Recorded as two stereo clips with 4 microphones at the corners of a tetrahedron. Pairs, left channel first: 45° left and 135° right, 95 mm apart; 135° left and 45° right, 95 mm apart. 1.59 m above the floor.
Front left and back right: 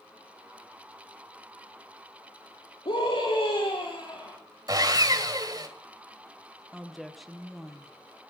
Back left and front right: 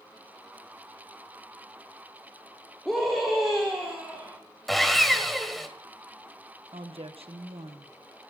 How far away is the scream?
About 3.5 m.